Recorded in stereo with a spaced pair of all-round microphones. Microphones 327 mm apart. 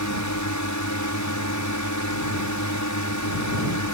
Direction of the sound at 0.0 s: 60° left (ahead or behind).